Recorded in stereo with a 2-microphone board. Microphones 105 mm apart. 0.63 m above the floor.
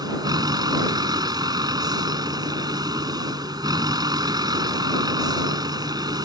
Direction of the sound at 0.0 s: 40° right (ahead or behind).